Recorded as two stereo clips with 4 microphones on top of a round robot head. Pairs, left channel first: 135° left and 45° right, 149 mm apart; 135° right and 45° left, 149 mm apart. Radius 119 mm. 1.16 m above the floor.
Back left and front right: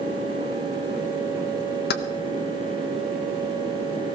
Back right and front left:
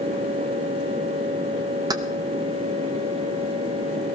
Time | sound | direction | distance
1.9 | keys jangling | 115° left | 0.8 m